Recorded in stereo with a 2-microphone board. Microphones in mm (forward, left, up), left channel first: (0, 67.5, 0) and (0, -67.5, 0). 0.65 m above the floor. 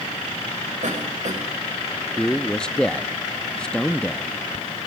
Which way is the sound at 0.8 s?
70° right (ahead or behind).